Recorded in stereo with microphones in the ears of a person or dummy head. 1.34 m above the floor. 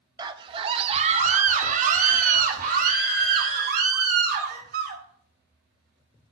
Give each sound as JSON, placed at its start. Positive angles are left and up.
{"t": 0.2, "sound": "a scream", "side_deg": -25, "distance_m": 0.9}